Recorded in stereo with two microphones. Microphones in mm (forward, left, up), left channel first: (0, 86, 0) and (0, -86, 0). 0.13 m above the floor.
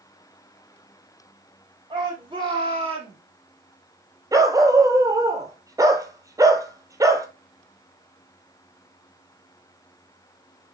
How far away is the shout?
About 3.5 m.